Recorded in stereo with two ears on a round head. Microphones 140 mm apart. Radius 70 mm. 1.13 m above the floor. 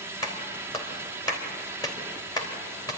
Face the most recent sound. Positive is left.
turn(degrees=25)  # may be behind; listen again after turning